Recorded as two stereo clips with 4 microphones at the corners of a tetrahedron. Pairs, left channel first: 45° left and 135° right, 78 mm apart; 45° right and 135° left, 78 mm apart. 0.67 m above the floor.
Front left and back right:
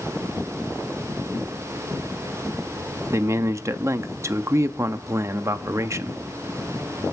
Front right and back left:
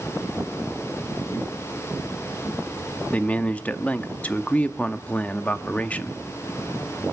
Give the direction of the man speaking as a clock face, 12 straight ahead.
4 o'clock.